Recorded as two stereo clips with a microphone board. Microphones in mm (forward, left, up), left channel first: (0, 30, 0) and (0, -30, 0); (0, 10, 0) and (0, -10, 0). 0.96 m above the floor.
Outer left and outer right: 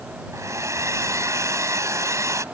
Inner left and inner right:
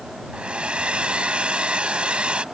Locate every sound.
0.3 s a hair dryer: 60° right (ahead or behind)